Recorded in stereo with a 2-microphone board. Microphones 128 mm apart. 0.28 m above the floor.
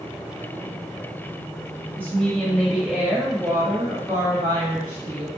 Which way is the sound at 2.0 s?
15° left (ahead or behind).